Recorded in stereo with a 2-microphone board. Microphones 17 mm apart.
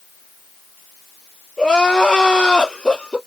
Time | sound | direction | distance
1.6 | crying | 65° left (ahead or behind) | 2.5 m